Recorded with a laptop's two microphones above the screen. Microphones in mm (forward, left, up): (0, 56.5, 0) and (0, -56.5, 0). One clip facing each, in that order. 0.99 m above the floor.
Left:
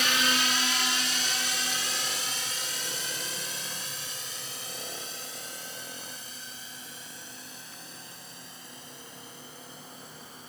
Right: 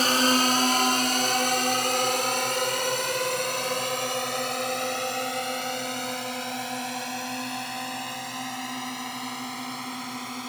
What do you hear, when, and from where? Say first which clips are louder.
0.0 s a drone: right 7 dB; 40° right (ahead or behind); by 10.5 s 75° right (ahead or behind)